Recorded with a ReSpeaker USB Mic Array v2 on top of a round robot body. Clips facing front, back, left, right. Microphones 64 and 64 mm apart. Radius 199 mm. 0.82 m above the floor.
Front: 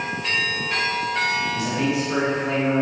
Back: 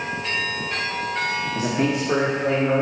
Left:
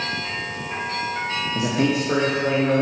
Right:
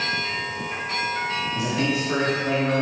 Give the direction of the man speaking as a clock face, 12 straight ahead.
8 o'clock.